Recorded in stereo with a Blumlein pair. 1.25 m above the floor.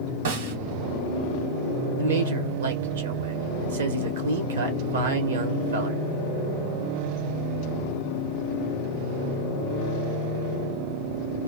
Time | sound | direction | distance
0.2 | a snare drum | 60° right | 1.4 m
2.0 | a man speaking | 65° right | 1.2 m